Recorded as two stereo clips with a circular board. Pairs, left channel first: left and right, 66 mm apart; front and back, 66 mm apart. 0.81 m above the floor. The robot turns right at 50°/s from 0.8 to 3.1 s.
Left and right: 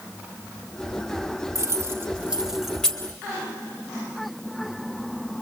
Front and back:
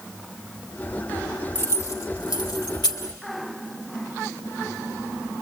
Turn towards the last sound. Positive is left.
turn(degrees=20)